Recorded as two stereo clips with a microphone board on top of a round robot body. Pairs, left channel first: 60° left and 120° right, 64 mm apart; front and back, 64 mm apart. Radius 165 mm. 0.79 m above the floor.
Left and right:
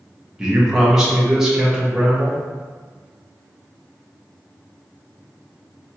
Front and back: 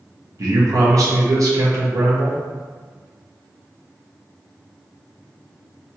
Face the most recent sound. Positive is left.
turn(degrees=160)